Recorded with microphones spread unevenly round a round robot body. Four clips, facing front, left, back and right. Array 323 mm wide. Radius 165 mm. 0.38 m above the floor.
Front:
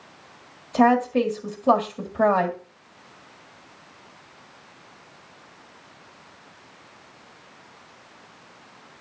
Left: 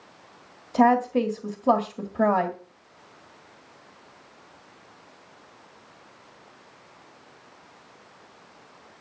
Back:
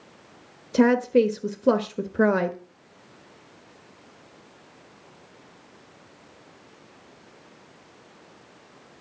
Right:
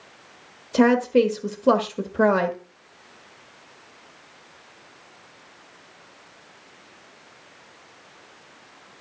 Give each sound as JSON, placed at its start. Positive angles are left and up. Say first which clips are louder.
{"t": 0.7, "sound": "a woman speaking", "louder": "right 2 dB, even", "azimuth_deg": -150, "distance_m": 1.6}